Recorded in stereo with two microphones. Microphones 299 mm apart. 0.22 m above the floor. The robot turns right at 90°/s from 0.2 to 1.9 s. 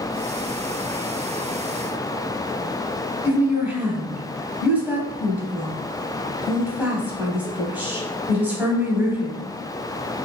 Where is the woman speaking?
5° right (ahead or behind), 1.1 m.